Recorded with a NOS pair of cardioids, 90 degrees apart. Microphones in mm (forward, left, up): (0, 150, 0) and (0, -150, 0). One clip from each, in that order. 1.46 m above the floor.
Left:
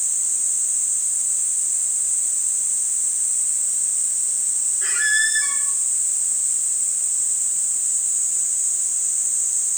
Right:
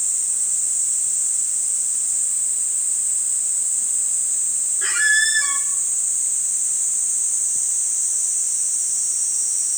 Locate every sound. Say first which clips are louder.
4.8 s a squeak: right 3 dB; 25° right, 1.8 m